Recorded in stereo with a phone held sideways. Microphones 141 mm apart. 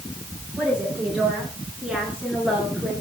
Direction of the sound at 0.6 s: 5° right (ahead or behind).